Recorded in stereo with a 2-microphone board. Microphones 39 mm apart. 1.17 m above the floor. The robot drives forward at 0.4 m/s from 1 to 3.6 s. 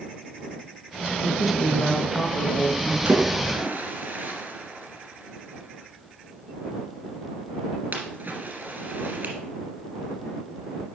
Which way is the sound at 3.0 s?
55° right (ahead or behind).